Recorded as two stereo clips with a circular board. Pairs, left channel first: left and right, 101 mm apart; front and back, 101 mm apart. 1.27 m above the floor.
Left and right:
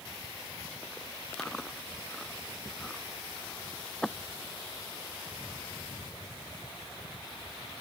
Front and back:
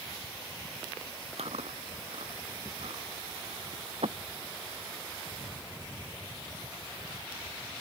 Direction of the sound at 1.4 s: 175° left.